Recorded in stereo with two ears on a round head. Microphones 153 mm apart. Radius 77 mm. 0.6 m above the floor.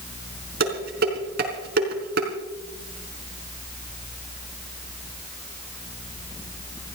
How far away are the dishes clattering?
About 4 m.